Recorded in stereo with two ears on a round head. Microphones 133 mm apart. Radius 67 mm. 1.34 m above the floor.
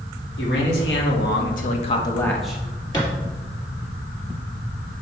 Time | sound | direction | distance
0.4 | a man speaking | 85° left | 2.5 m
2.9 | a thud | 20° left (ahead or behind) | 3 m